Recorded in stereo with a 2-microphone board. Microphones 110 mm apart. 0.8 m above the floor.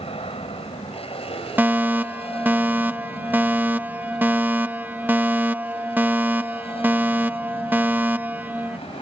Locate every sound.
0.0 s an aircraft: 60° left (ahead or behind)
1.6 s a fire alarm: 20° right (ahead or behind)